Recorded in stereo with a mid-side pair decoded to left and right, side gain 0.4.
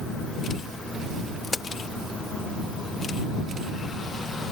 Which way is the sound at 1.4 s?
40° left.